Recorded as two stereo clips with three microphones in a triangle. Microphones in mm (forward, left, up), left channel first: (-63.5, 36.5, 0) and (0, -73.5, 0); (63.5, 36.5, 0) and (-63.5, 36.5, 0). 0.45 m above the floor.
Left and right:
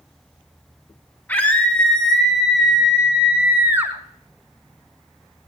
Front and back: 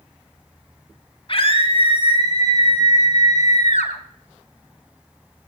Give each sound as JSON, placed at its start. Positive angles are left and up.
{"t": 1.3, "sound": "a scream", "azimuth_deg": 45, "distance_m": 2.5}